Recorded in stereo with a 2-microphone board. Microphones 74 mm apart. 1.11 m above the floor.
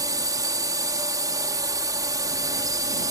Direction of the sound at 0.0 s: 55° right (ahead or behind).